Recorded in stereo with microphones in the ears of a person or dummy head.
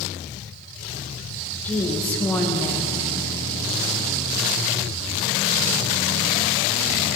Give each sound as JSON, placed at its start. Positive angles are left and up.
{"t": 1.6, "sound": "a woman speaking", "side_deg": 10, "distance_m": 1.7}